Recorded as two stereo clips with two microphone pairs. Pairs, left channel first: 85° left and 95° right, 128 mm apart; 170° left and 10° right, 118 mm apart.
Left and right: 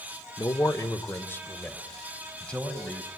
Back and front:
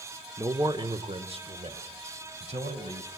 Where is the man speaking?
40° left, 1.3 m; by 3.1 s straight ahead, 4 m.